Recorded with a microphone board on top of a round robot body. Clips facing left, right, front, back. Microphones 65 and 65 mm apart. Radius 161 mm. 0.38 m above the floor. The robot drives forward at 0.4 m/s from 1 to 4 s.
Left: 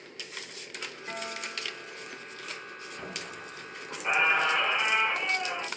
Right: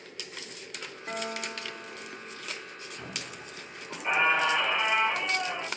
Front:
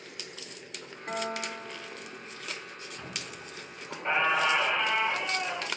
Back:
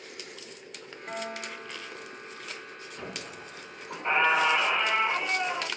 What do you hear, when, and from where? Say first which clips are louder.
1.1 s a guitar: right 4 dB, front 3 dB; 45° right, 1.5 m; by 2.5 s 80° right, 1.4 m
3.0 s a squeak: left 2 dB, back 4 dB; 160° left, 1.2 m; by 5.7 s 165° left, 1.6 m